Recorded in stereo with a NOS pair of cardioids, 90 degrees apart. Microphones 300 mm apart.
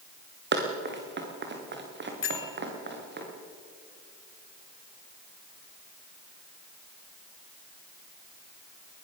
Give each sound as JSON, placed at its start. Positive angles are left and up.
{"t": 0.5, "sound": "running footsteps", "azimuth_deg": -40, "distance_m": 4.5}
{"t": 2.2, "sound": "a bell", "azimuth_deg": 45, "distance_m": 3.0}